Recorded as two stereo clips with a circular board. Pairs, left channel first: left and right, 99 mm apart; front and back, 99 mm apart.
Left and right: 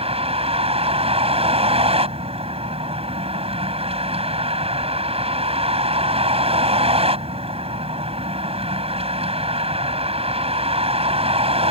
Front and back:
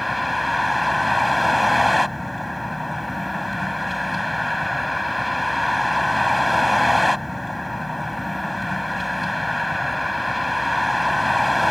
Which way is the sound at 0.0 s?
90° right.